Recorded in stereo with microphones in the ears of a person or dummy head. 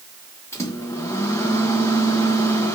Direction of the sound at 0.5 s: 25° left (ahead or behind).